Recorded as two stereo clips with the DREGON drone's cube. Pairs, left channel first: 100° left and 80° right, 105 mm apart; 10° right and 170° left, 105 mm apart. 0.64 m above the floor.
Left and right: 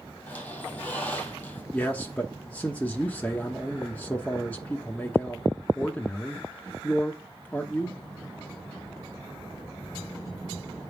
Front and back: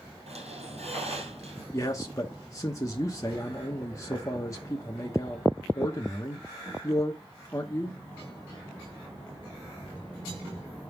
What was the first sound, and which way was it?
A squeak, 175° left.